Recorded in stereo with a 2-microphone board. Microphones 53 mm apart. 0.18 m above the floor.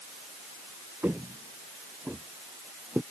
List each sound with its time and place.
1.0 s footsteps: 40° right (ahead or behind); by 3.0 s 25° right (ahead or behind)